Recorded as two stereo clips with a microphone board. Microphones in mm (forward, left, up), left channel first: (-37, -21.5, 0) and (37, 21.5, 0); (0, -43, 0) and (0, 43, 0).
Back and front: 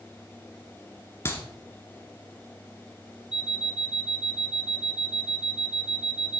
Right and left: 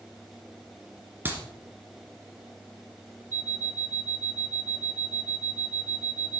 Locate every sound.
1.2 s a clap: 155° left, 1.7 m
3.3 s an alarm clock: 90° left, 0.9 m